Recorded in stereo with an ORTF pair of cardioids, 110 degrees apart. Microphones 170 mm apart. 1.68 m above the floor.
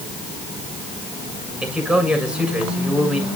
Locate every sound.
1.6 s a man speaking: 5° right, 7 m